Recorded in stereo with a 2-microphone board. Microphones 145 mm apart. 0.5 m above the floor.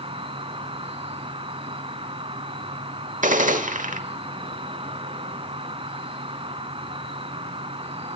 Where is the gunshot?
65° right (ahead or behind), 1.2 m.